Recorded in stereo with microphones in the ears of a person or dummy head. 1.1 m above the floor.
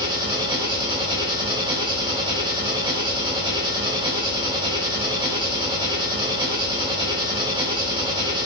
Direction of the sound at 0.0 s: 20° right (ahead or behind).